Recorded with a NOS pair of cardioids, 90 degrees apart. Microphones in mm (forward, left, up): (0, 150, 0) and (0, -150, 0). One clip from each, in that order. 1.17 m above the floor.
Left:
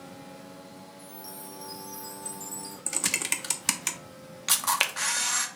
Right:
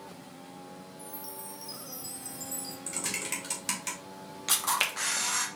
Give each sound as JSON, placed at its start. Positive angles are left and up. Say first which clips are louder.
{"t": 1.0, "sound": "a chime", "louder": "even", "azimuth_deg": -10, "distance_m": 1.6}
{"t": 2.9, "sound": "typing on a keyboard", "louder": "left 6 dB", "azimuth_deg": 50, "distance_m": 0.9}
{"t": 4.5, "sound": "a camera shutter", "louder": "left 2 dB", "azimuth_deg": 20, "distance_m": 0.9}